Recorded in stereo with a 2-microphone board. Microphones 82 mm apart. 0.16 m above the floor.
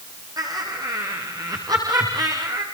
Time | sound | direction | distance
0.4 | laughter | 50° right (ahead or behind) | 5.5 m